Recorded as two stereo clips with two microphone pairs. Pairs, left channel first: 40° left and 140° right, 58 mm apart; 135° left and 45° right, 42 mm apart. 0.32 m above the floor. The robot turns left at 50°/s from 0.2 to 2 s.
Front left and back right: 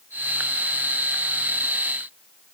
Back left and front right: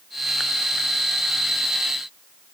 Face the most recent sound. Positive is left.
No sound to turn to.